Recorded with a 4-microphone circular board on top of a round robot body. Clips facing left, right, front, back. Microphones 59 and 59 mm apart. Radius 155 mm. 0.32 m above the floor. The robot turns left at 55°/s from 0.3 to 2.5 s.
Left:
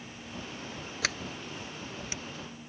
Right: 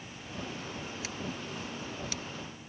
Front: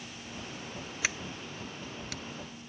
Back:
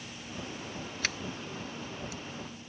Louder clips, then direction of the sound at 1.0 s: Left 6 dB, front 1 dB; 80° left.